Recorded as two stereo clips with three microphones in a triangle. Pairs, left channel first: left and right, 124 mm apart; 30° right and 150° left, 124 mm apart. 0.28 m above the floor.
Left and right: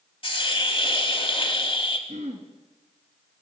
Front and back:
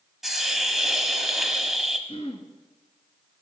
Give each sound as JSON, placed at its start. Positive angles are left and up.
{"t": 0.2, "sound": "a hiss", "azimuth_deg": 65, "distance_m": 1.1}
{"t": 2.1, "sound": "throat clearing", "azimuth_deg": -70, "distance_m": 1.4}